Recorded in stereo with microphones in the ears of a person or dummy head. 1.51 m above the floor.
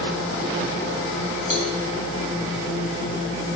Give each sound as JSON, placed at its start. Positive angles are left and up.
{"t": 1.5, "sound": "a cowbell", "side_deg": -25, "distance_m": 1.2}